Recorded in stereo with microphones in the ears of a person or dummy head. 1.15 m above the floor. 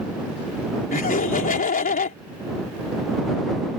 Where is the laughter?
45° left (ahead or behind).